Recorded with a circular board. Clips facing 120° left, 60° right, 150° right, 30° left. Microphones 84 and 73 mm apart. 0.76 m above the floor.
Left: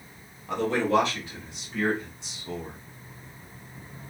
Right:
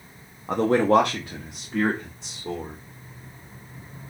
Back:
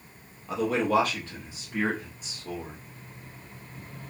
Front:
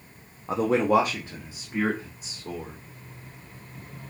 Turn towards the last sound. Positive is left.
turn(degrees=-50)